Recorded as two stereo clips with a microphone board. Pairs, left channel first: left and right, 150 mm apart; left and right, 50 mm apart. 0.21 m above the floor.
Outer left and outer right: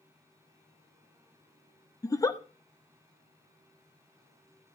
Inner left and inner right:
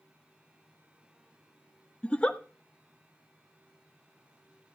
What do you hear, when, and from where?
2.0 s a giggle: 20° left (ahead or behind), 0.6 m